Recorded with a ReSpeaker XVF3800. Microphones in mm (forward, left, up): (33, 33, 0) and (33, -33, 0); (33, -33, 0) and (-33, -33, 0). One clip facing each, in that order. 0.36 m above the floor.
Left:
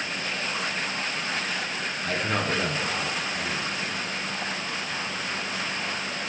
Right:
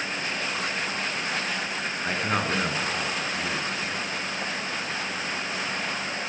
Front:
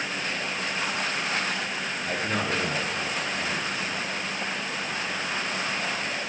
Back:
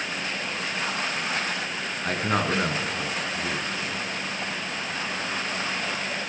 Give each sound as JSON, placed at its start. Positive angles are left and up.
{"t": 2.0, "sound": "a man speaking", "azimuth_deg": -155, "distance_m": 3.5}